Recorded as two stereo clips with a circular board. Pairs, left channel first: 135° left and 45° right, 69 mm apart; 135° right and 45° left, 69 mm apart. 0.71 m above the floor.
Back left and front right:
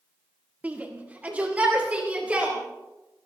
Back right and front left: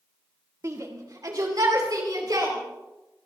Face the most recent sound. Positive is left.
turn(degrees=25)